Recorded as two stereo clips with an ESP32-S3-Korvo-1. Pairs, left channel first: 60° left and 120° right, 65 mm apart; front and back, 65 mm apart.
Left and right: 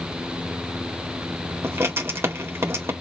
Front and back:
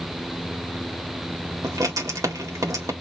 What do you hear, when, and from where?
1.6 s writing: 160° right, 1.8 m